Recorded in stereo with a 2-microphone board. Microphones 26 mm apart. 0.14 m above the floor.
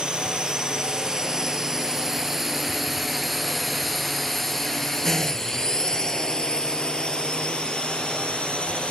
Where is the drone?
35° right (ahead or behind); by 8.9 s 50° left (ahead or behind).